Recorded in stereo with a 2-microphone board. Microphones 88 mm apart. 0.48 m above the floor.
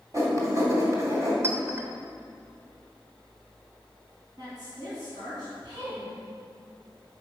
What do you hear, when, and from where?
0.1 s writing: 35° right (ahead or behind), 2.5 m
1.4 s a clink: 30° right (ahead or behind), 1.4 m
4.4 s a woman speaking: 55° right (ahead or behind), 3.5 m